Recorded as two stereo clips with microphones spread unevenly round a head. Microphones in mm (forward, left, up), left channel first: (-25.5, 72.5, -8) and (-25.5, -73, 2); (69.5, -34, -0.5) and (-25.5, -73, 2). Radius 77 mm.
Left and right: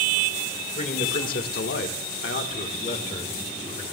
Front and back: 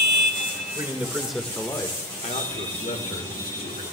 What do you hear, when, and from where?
0.8 s a man speaking: 130° left, 2 m; by 3.8 s 25° left, 2.5 m